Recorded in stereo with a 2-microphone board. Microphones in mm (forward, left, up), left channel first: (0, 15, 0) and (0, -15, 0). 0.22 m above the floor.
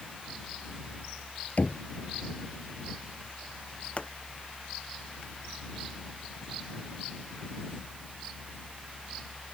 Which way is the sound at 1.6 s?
60° left (ahead or behind).